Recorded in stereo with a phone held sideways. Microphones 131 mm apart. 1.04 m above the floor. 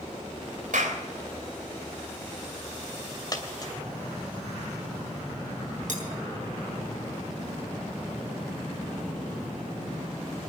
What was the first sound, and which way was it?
A clap, 90° right.